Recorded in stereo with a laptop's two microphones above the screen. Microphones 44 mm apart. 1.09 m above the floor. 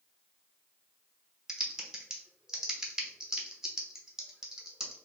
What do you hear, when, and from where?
1.5 s typing on a keyboard: 10° right (ahead or behind), 0.8 m